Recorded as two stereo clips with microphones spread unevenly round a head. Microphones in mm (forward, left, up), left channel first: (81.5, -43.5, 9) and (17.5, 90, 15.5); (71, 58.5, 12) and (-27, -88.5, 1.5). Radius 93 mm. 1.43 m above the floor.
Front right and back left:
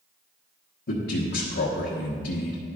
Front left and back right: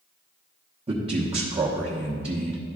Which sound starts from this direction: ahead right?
A man speaking, at 0.9 s.